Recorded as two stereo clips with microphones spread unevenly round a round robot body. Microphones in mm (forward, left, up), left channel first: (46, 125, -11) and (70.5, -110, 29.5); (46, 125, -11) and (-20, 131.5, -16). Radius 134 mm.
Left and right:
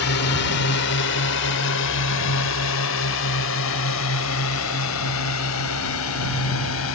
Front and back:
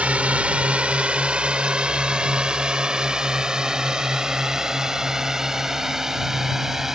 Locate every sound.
0.0 s a drone: 110° left; by 7.0 s 90° left